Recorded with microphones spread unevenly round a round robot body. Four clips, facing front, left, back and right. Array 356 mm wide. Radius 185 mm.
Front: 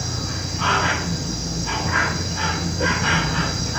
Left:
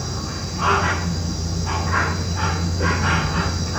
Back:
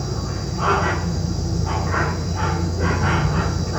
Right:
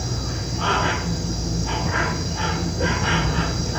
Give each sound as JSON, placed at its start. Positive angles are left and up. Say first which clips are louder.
{"t": 0.0, "sound": "an insect", "louder": "even, back 2 dB", "azimuth_deg": -165, "distance_m": 5.0}